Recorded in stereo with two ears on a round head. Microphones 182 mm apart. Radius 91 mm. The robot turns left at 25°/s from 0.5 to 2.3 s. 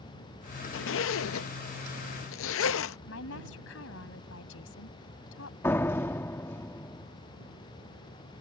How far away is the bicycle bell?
No bicycle bell in this recording.